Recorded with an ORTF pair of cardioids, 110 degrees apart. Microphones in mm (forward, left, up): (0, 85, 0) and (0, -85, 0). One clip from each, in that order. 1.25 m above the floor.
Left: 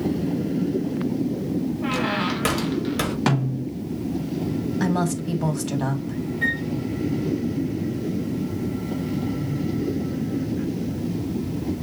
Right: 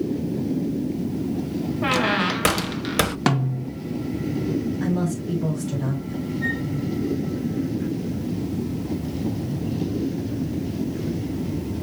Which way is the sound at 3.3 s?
25° right.